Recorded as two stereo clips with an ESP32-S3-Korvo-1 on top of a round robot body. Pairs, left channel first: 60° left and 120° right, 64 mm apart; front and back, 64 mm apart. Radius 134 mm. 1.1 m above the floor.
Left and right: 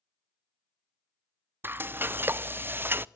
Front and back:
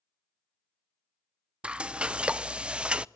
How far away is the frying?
About 0.6 m.